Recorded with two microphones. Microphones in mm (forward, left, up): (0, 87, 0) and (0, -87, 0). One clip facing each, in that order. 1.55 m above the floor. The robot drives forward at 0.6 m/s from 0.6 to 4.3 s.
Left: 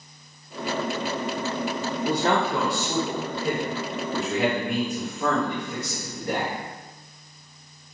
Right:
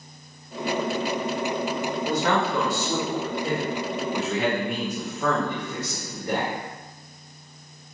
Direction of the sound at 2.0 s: 30° left (ahead or behind).